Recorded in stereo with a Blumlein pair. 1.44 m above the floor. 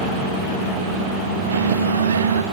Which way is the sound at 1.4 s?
70° right.